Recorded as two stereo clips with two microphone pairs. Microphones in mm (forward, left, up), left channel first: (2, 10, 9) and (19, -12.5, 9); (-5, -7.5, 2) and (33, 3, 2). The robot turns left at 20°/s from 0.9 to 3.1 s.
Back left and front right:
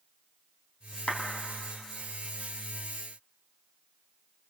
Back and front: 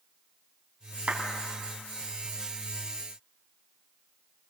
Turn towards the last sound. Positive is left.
turn(degrees=30)